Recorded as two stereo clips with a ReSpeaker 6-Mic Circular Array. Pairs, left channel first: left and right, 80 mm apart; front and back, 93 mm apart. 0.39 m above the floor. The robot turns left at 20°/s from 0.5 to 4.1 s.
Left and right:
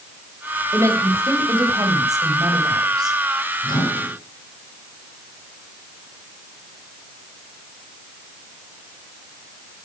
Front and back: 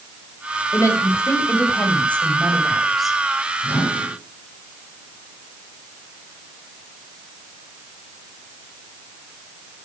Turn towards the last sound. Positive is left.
turn(degrees=100)